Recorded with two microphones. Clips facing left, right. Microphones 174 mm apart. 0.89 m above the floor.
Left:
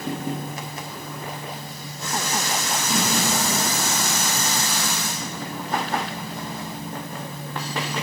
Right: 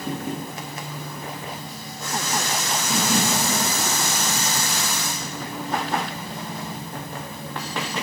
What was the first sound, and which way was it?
Only background noise.